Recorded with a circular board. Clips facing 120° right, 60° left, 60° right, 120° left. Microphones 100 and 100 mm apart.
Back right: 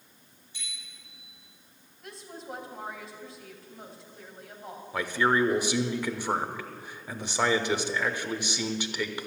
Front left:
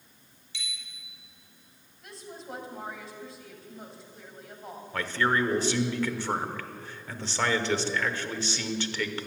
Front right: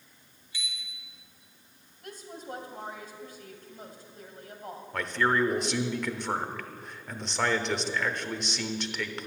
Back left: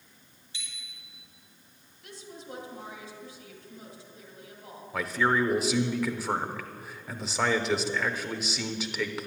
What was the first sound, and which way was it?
A bicycle bell, 55° left.